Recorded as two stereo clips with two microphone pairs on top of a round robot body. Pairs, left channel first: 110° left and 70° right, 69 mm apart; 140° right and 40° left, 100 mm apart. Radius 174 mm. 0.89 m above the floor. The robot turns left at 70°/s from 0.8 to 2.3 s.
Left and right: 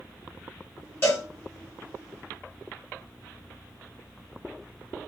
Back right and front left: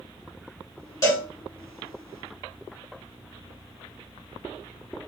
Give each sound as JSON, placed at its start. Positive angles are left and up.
{"t": 1.0, "sound": "a cowbell", "azimuth_deg": 165, "distance_m": 1.5}